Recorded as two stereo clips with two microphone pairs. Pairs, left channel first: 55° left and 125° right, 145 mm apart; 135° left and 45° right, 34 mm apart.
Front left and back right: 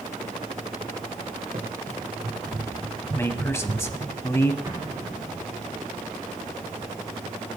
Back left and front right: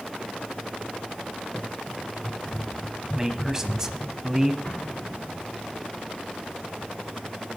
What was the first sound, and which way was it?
Running footsteps, 135° right.